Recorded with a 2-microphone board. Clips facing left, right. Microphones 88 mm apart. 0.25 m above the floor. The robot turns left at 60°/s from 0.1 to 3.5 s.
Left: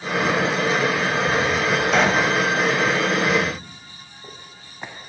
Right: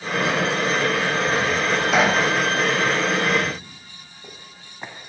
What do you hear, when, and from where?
1.9 s a pop: centre (ahead or behind), 0.6 m; by 2.3 s 15° right (ahead or behind), 0.6 m